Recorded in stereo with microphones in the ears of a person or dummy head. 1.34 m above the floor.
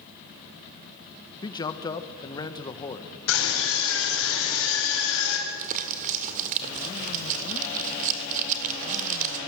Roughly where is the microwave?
I don't hear a microwave.